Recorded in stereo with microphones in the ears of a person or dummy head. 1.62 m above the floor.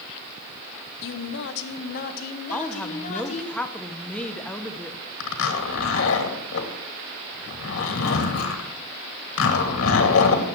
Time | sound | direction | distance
1.0 | a woman speaking | 75° left (ahead or behind) | 0.9 m
2.5 | a woman speaking | 5° left (ahead or behind) | 0.8 m
5.2 | a zipper | 75° left (ahead or behind) | 2.5 m